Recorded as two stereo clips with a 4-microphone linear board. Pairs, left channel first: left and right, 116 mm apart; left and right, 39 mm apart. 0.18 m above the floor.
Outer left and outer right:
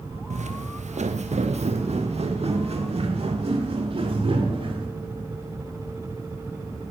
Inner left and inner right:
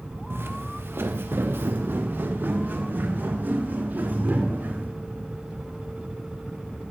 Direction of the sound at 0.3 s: 75° right (ahead or behind).